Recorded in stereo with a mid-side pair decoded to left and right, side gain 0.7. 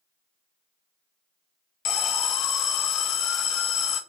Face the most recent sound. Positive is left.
turn(degrees=45)